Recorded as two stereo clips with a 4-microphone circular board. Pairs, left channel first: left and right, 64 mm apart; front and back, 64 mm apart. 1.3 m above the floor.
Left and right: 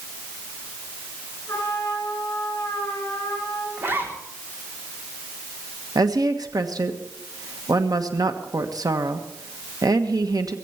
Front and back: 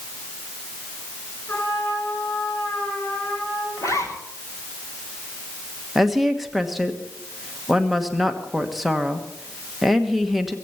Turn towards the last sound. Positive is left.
turn(degrees=-90)